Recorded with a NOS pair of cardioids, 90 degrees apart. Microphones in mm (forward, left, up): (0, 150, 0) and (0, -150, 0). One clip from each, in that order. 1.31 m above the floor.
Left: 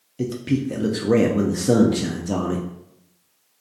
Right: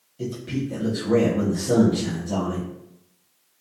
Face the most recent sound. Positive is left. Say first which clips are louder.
# left 5 dB
turn(degrees=45)